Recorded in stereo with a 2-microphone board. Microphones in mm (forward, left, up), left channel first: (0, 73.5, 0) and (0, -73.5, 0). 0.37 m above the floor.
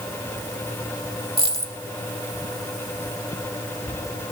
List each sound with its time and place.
1.4 s a dropped coin: 40° right (ahead or behind), 0.7 m